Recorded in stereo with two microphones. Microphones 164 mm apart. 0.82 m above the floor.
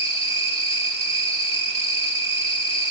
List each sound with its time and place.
0.0 s an insect: 35° left (ahead or behind), 2 m